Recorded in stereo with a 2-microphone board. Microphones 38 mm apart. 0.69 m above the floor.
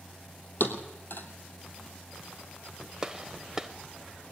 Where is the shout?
I don't hear a shout.